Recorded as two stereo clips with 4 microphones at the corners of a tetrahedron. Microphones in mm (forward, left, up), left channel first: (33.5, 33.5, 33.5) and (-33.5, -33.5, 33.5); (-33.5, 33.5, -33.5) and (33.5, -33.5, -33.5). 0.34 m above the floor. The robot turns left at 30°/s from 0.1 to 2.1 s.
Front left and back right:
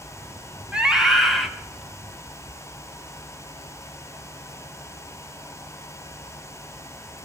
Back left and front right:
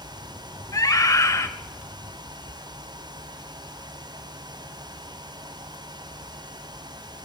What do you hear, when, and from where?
0.7 s a scream: 150° left, 1.2 m; by 1.5 s 130° left, 1.2 m